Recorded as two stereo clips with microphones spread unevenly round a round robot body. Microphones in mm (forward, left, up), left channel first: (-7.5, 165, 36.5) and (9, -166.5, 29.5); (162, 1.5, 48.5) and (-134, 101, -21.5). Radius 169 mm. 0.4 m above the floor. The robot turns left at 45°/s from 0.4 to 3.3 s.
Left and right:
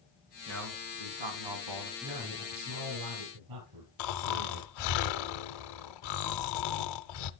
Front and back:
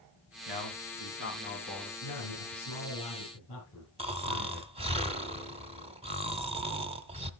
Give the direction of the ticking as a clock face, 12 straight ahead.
I don't hear ticking.